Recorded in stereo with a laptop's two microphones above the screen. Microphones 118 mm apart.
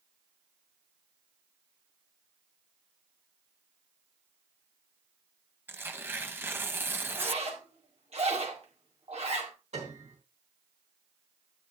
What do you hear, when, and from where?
5.7 s tearing paper: 20° right (ahead or behind), 0.9 m
7.1 s a zipper: 60° right (ahead or behind), 2 m
9.7 s a piano: 70° right (ahead or behind), 3 m